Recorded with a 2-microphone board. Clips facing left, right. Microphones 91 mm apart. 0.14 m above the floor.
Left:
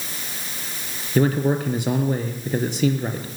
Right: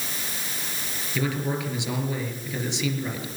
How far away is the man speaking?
About 3 m.